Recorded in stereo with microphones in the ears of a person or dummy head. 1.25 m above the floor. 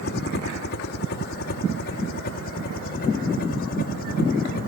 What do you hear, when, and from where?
0.0 s a helicopter: 55° left (ahead or behind); by 4.7 s 50° left (ahead or behind)